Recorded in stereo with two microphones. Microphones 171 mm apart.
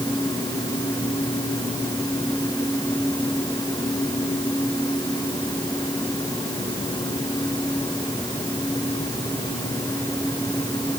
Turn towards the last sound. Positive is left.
No sound to turn to.